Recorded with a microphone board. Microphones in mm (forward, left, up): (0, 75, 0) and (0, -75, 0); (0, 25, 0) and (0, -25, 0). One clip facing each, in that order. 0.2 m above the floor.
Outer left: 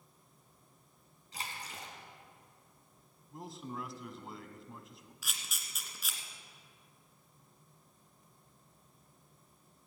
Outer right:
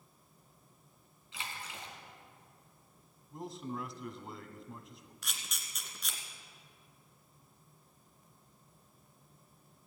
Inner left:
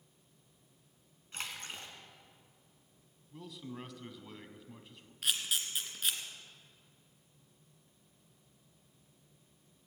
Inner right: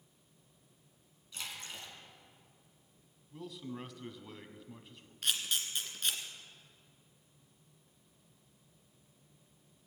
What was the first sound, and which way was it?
A splash, 40° left (ahead or behind).